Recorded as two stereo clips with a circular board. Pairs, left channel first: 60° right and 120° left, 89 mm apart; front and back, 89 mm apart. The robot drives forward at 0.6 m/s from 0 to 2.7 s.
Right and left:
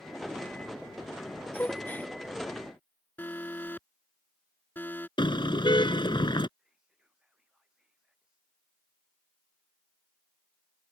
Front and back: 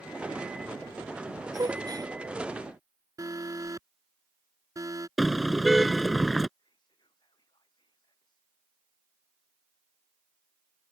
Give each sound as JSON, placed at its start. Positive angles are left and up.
{"t": 1.5, "sound": "a gasp", "azimuth_deg": -130}
{"t": 3.2, "sound": "an alarm", "azimuth_deg": -130}
{"t": 5.2, "sound": "a car horn", "azimuth_deg": -90}
{"t": 6.6, "sound": "whispering", "azimuth_deg": 40}